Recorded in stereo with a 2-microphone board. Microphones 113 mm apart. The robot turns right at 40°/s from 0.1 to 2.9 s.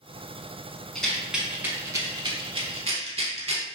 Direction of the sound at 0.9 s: 5° left (ahead or behind).